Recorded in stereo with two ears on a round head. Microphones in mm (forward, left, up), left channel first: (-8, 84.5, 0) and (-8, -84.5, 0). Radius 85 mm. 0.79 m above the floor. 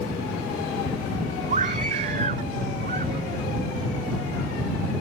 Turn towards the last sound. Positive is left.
turn(degrees=-45)  # may be behind; listen again after turning